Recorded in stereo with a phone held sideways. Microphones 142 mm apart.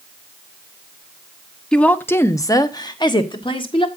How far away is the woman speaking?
About 0.8 m.